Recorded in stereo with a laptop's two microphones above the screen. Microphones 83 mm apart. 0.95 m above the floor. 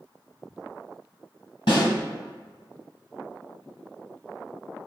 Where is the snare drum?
75° left (ahead or behind), 1.9 m.